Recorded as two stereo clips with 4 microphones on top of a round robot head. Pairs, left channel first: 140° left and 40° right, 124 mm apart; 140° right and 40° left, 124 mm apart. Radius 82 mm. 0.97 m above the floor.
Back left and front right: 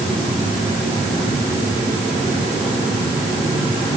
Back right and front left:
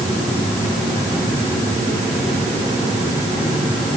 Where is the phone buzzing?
No phone buzzing in this recording.